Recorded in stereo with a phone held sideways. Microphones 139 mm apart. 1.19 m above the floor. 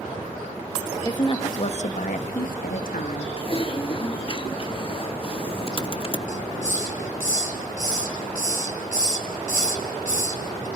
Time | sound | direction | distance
1.1 | a woman speaking | 25° left (ahead or behind) | 1.6 m
3.4 | typing on a keyboard | 40° left (ahead or behind) | 0.9 m
6.3 | a hiss | 70° left (ahead or behind) | 2.5 m